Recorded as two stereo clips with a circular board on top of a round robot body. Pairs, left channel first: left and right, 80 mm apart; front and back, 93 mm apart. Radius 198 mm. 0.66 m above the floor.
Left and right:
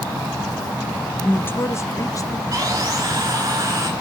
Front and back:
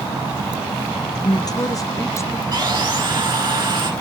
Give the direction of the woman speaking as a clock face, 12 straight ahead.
11 o'clock.